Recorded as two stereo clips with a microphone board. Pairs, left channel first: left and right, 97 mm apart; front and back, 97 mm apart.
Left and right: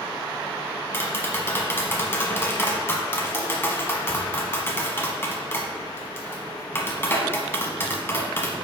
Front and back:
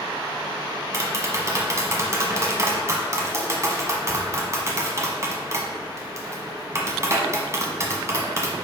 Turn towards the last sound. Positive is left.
turn(degrees=140)